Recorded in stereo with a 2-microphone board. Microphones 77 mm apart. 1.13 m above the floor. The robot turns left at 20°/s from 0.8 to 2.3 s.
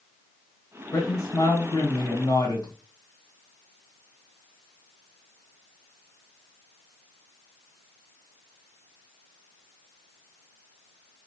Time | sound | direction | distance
0.9 | a man speaking | 40° left (ahead or behind) | 1.4 m